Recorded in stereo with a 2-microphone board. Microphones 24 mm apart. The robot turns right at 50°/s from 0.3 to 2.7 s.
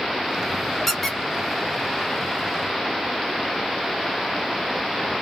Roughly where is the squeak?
Centre.